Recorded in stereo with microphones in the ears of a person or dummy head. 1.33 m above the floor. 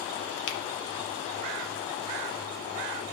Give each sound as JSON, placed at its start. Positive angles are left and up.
{"t": 0.5, "sound": "a finger snap", "side_deg": 80, "distance_m": 1.4}